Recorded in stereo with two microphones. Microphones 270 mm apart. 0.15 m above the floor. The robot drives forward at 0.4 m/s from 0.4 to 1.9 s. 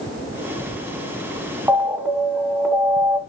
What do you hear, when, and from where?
1.7 s an alarm: 5° right (ahead or behind), 1.3 m